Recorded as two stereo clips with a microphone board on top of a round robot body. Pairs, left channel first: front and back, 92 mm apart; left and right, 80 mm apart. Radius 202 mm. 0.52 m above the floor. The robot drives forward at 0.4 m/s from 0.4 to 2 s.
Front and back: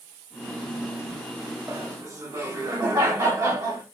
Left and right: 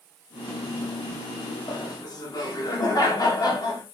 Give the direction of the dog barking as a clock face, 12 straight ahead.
No dog barking in this recording.